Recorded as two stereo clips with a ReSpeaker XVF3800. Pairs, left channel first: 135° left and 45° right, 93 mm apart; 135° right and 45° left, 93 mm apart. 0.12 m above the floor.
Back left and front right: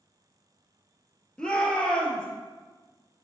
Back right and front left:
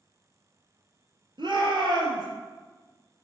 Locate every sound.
1.4 s a shout: 55° left, 2.5 m